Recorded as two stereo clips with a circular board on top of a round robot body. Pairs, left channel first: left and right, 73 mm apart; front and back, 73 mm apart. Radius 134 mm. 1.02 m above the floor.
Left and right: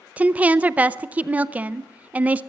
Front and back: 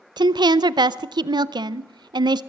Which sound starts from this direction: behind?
A woman speaking, at 0.2 s.